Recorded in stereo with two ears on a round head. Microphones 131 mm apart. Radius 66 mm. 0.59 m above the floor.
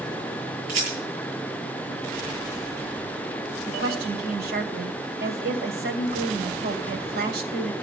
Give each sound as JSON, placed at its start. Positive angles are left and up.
{"t": 0.7, "sound": "a rattle", "side_deg": -55, "distance_m": 8.5}
{"t": 3.7, "sound": "a woman speaking", "side_deg": -70, "distance_m": 3.0}